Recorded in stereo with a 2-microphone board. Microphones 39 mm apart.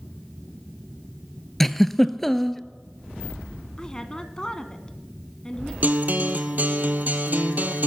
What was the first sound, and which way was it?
A giggle, 5° left (ahead or behind).